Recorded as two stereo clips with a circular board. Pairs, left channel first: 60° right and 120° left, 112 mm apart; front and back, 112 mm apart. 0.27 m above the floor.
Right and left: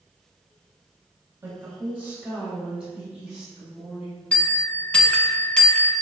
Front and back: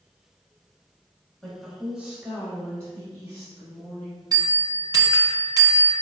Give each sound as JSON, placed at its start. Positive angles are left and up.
{"t": 1.4, "sound": "a woman speaking", "azimuth_deg": 85, "distance_m": 1.3}
{"t": 4.3, "sound": "a bell", "azimuth_deg": -140, "distance_m": 0.6}